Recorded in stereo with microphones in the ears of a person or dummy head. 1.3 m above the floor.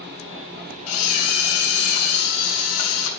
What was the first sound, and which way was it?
A camera shutter, 75° left (ahead or behind).